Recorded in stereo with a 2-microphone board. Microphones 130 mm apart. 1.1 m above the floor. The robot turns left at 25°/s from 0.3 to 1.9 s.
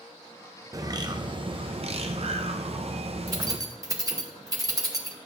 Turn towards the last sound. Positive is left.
turn(degrees=-25)  # may be behind; listen again after turning